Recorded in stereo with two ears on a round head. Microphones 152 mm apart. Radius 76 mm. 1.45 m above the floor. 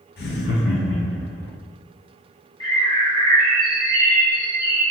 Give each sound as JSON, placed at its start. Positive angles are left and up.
{"t": 0.2, "sound": "laughter", "side_deg": 60, "distance_m": 0.5}
{"t": 2.6, "sound": "a bird", "side_deg": 20, "distance_m": 0.8}